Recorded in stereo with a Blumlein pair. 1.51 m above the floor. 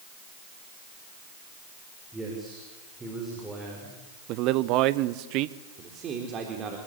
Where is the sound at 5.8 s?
30° right, 3.5 m.